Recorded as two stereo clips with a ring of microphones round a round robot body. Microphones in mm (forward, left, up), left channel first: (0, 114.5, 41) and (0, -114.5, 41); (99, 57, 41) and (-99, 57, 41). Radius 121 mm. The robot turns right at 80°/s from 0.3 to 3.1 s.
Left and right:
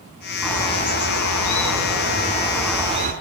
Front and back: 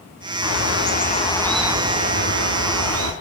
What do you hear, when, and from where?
0.4 s a bird: straight ahead, 5 m; by 3.1 s 145° right, 5 m